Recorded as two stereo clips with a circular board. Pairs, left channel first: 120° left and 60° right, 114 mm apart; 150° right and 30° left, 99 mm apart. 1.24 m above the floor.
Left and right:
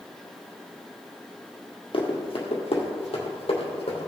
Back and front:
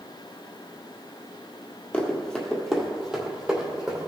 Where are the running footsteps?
130° left, 1.9 m; by 4.1 s 100° left, 2.5 m.